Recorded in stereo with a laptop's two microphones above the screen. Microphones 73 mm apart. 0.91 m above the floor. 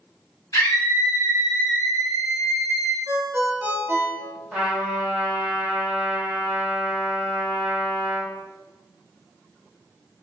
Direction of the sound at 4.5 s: 10° right (ahead or behind).